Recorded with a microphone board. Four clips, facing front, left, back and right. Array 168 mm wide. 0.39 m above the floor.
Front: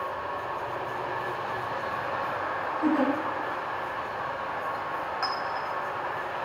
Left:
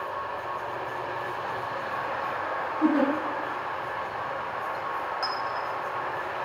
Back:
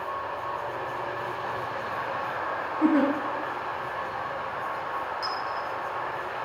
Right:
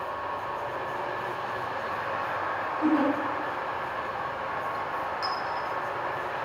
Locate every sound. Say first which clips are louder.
2.8 s a giggle: left 1 dB, back 3 dB; 150° left, 2 m
5.2 s a clink: even, front 1 dB; 30° left, 1.6 m